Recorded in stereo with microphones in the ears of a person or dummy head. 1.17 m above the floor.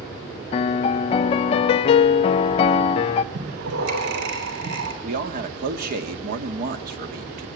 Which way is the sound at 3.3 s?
70° right (ahead or behind).